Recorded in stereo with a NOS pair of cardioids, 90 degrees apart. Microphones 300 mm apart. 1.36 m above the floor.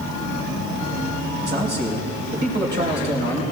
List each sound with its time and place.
1.4 s a man speaking: 35° right, 4.5 m